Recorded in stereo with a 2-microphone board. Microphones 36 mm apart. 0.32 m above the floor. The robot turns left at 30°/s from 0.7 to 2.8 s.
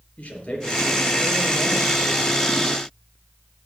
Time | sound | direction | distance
0.2 | a man speaking | 145° left | 5 m